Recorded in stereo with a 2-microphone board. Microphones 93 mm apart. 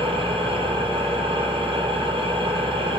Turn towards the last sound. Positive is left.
turn(degrees=-80)